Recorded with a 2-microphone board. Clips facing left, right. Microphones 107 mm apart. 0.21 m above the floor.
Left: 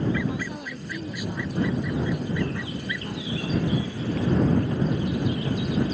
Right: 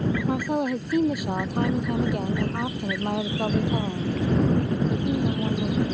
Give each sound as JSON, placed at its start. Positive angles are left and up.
{"t": 0.3, "sound": "a woman speaking", "side_deg": -55}